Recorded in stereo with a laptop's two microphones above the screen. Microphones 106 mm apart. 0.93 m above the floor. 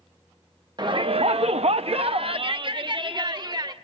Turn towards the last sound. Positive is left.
turn(degrees=-40)  # may be behind; listen again after turning